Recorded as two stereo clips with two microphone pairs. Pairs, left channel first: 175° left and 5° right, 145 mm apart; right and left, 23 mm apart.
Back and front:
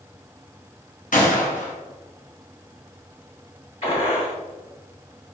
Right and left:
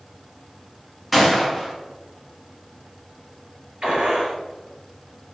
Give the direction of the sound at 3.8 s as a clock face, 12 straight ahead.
8 o'clock.